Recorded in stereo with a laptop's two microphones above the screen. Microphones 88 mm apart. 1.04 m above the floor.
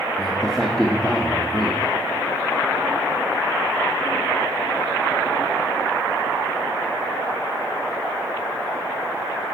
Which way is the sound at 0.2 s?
5° left (ahead or behind).